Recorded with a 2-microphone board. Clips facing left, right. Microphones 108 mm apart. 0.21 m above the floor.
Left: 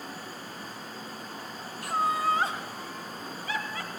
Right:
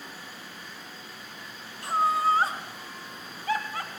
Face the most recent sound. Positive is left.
turn(degrees=-50)  # may be behind; listen again after turning